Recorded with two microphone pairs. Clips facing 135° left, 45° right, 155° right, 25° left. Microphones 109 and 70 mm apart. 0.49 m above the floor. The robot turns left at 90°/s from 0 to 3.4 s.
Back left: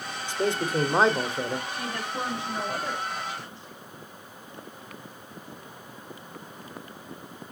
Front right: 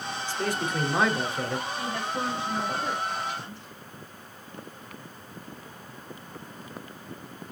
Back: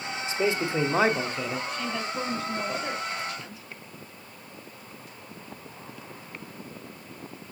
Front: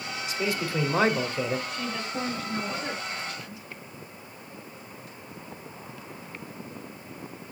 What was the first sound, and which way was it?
A man speaking, 170° right.